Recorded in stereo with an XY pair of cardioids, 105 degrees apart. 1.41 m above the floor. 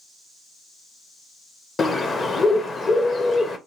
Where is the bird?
35° left, 0.8 m.